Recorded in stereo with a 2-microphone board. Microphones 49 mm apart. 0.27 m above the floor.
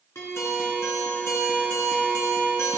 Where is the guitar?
65° left (ahead or behind), 3 m.